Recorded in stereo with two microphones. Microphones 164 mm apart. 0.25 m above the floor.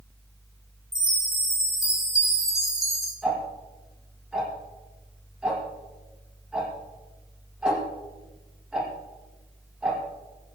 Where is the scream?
No scream in this recording.